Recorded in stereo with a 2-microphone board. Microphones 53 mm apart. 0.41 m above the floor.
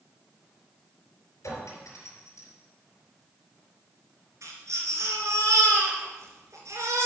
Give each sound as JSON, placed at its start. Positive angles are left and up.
{"t": 1.4, "sound": "a clink", "side_deg": 70, "distance_m": 4.0}
{"t": 4.4, "sound": "a baby crying", "side_deg": -70, "distance_m": 3.0}